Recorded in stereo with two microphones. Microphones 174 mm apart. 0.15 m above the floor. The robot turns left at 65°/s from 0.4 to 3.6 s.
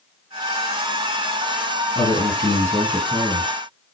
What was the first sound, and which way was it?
A man speaking, 70° left.